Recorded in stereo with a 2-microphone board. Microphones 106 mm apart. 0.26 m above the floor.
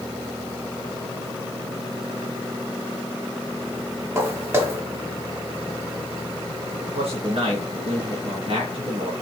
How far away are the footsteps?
About 2.5 m.